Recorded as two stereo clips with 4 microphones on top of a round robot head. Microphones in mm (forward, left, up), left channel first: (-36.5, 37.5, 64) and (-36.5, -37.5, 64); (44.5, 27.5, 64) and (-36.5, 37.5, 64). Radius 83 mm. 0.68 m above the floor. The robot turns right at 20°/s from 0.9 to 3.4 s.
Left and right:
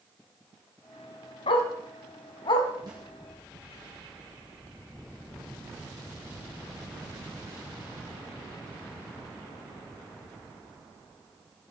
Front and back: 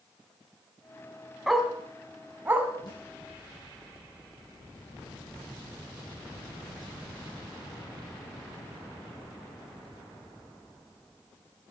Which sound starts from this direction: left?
A dog barking, at 1.5 s.